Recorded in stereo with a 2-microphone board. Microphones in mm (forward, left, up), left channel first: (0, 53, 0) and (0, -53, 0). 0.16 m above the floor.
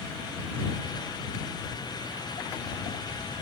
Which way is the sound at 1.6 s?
30° left (ahead or behind).